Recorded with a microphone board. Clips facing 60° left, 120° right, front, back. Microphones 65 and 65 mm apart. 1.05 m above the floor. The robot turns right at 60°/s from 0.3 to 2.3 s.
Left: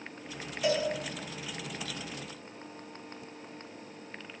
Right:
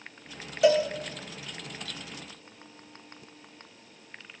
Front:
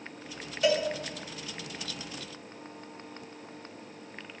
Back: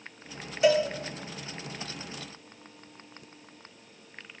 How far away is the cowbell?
About 1.4 m.